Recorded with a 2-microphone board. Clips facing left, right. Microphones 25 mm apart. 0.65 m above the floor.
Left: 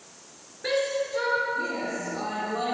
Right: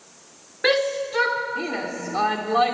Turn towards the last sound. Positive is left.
turn(degrees=-60)  # may be behind; listen again after turning